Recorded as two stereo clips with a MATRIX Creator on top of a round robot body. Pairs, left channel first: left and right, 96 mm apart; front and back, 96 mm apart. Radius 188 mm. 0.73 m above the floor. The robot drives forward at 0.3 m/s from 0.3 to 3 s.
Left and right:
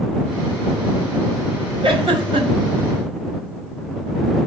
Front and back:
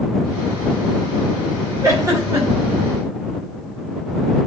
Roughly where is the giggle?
Behind right.